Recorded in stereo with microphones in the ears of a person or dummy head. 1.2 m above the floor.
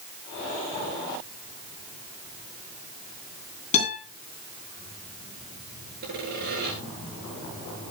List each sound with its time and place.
3.7 s a guitar: 35° left (ahead or behind), 9 m
6.0 s sawing: 60° right (ahead or behind), 8 m